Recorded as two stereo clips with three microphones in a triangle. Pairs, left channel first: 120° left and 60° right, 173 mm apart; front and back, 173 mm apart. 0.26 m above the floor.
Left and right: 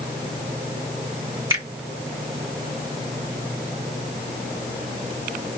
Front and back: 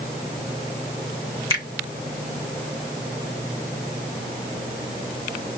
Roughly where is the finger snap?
Behind right.